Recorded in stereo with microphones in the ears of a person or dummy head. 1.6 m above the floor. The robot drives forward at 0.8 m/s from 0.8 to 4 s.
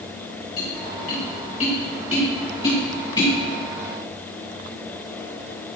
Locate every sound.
0.6 s tapping: 45° left (ahead or behind), 2.5 m; by 3.3 s 25° left (ahead or behind), 4 m